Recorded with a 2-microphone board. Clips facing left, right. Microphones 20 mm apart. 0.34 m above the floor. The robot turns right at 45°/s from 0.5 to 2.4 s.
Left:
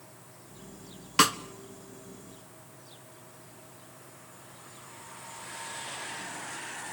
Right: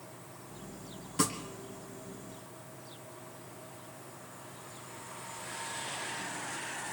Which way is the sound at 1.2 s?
65° left (ahead or behind).